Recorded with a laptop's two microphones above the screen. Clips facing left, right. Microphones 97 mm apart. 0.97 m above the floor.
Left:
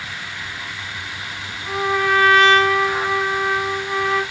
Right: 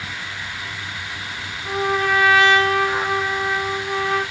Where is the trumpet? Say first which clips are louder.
Left 1 dB; 15° right (ahead or behind), 1.4 m.